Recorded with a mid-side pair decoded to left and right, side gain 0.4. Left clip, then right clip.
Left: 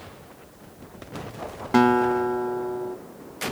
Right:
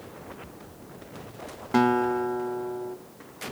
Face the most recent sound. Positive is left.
turn(degrees=30)